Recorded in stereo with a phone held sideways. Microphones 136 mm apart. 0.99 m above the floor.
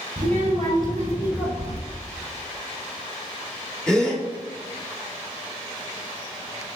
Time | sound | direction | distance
0.2 | a child speaking | 55° right (ahead or behind) | 1.8 m
1.6 | keys jangling | 50° left (ahead or behind) | 0.5 m
3.9 | a gasp | 5° left (ahead or behind) | 1.5 m